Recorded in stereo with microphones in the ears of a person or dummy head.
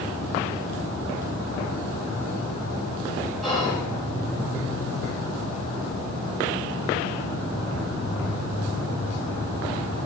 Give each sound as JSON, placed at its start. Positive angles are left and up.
{"t": 3.4, "sound": "whispering", "side_deg": 5, "distance_m": 2.0}